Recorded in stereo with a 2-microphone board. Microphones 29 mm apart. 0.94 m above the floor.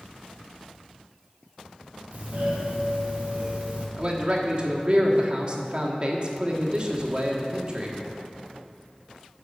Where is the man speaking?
40° right (ahead or behind), 1.5 m.